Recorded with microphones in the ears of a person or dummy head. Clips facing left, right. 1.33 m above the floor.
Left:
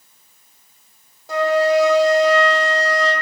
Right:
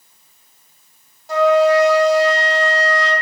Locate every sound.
1.3 s a flute: 65° left (ahead or behind), 1.0 m